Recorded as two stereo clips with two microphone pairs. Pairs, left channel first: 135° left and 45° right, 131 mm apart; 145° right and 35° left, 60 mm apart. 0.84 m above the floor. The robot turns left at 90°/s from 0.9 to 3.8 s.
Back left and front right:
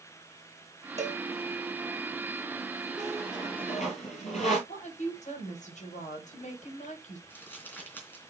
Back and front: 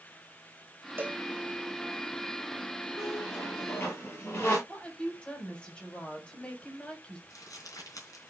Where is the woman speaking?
145° left, 4 m.